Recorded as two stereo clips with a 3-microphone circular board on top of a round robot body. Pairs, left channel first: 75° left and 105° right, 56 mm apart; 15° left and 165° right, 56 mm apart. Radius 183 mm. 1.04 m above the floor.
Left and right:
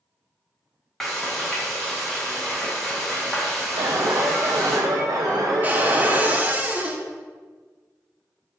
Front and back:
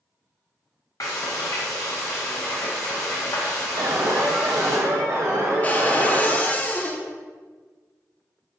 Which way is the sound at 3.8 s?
125° right.